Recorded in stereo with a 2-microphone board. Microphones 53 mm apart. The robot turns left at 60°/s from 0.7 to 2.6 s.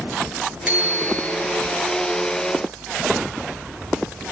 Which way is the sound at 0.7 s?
150° right.